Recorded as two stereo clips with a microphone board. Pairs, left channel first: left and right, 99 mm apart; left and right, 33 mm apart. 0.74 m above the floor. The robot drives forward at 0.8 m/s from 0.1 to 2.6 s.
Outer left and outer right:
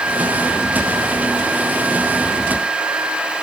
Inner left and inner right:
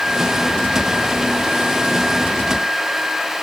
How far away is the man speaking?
I don't hear a man speaking.